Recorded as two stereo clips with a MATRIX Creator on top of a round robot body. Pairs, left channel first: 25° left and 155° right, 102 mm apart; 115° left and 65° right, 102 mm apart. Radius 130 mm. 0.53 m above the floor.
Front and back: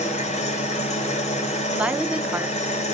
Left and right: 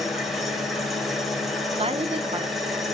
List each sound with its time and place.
0.0 s an engine running: 20° left, 1.9 m
1.7 s a woman speaking: 80° right, 1.2 m